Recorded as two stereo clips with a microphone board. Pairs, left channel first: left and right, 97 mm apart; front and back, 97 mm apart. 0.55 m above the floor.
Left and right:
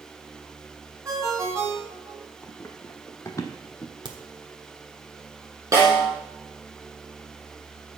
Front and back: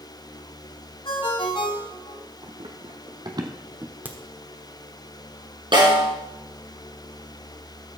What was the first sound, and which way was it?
A ringtone, 30° right.